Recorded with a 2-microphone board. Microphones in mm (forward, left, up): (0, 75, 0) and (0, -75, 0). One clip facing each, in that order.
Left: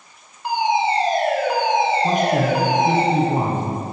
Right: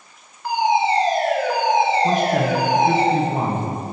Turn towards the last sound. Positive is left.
turn(degrees=20)  # may be behind; listen again after turning